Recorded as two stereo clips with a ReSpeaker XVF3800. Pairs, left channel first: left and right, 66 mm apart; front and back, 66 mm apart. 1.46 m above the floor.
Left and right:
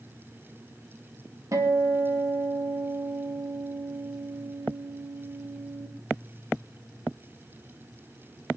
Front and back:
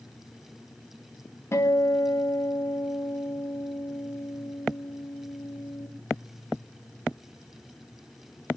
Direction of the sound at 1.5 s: 50° right.